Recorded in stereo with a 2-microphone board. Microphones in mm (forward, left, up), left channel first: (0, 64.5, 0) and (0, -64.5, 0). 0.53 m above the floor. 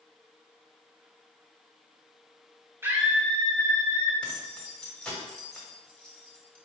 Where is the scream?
15° right (ahead or behind), 0.8 m; by 4.1 s 45° left (ahead or behind), 1.0 m.